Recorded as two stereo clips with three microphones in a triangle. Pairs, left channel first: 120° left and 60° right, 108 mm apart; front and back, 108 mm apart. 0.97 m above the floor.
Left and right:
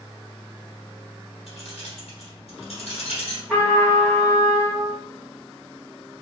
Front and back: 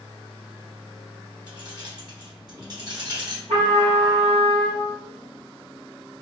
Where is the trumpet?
160° right, 1.7 m.